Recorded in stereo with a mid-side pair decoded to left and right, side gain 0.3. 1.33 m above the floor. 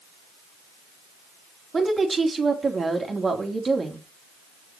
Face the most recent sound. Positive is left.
turn(degrees=-45)